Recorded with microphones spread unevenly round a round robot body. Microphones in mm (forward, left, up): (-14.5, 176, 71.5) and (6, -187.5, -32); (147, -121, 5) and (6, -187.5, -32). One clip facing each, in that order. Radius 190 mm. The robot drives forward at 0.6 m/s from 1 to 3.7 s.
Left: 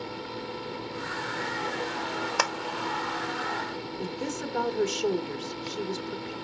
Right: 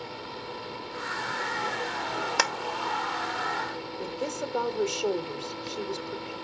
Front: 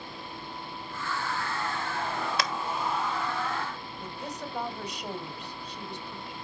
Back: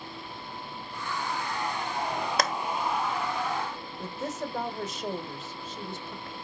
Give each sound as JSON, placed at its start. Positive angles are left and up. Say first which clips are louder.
{"t": 2.4, "sound": "a clap", "louder": "even, back 6 dB", "azimuth_deg": -130, "distance_m": 1.2}
{"t": 4.0, "sound": "a woman speaking", "louder": "even, back 6 dB", "azimuth_deg": 160, "distance_m": 1.5}